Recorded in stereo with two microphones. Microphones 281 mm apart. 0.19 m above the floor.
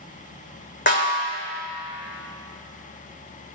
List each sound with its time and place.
0.9 s a snare drum: 40° left (ahead or behind), 1.9 m